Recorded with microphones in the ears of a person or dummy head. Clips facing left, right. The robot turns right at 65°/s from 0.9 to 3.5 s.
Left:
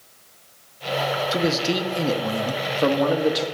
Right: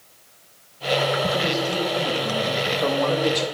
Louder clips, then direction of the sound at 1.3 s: Left 2 dB; 45° left.